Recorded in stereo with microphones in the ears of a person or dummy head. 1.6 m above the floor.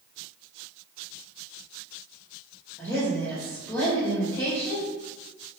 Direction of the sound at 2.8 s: 10° left (ahead or behind).